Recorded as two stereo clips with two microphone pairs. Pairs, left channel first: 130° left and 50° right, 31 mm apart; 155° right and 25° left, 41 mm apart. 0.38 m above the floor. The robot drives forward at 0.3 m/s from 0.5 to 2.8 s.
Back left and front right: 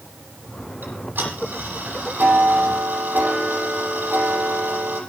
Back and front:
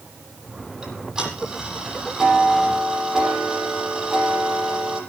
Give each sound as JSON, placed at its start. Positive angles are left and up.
{"t": 0.8, "sound": "ticking", "azimuth_deg": -45, "distance_m": 7.5}